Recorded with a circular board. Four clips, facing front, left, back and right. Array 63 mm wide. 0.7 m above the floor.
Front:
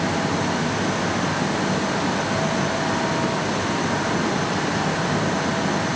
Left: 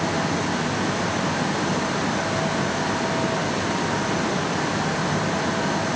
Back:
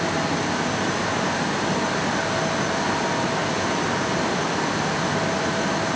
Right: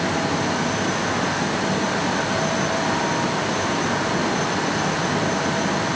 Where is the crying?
I don't hear crying.